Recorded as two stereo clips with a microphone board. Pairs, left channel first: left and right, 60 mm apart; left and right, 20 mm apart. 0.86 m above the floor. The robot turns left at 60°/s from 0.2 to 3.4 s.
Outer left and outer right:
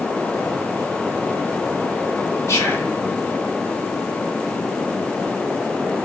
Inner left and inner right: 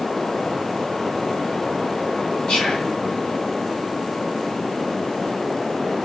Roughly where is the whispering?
Left.